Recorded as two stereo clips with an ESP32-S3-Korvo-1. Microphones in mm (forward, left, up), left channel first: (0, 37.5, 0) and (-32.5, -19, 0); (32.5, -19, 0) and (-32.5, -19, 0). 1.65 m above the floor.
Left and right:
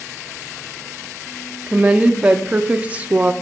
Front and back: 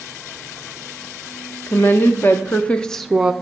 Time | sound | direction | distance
1.7 | a woman speaking | 45° right | 1.5 m